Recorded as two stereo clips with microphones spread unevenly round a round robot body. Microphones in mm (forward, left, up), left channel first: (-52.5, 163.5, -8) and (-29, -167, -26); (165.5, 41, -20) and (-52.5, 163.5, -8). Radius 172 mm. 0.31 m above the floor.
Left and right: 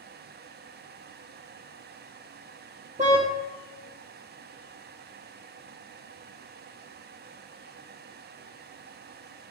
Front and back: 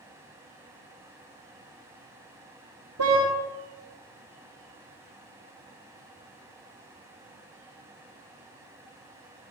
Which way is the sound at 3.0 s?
155° right.